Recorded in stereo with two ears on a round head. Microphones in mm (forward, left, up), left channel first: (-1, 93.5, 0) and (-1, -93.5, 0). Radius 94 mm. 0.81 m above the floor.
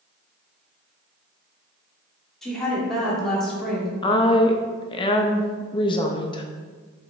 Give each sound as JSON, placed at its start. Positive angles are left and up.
{"t": 2.4, "sound": "a woman speaking", "side_deg": 5, "distance_m": 2.0}
{"t": 4.0, "sound": "a woman speaking", "side_deg": 25, "distance_m": 0.5}